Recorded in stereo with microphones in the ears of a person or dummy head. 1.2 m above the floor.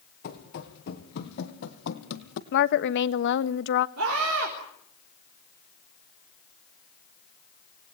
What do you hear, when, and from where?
0.2 s running footsteps: 55° left (ahead or behind), 5.5 m; by 2.4 s 70° left (ahead or behind), 3 m
2.5 s a woman speaking: 60° left (ahead or behind), 1.1 m
4.0 s a scream: 75° right (ahead or behind), 4.5 m